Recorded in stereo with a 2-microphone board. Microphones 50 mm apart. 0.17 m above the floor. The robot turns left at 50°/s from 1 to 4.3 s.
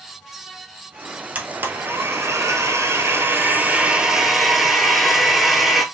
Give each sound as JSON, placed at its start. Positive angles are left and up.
{"t": 1.4, "sound": "a blender", "azimuth_deg": -25, "distance_m": 0.9}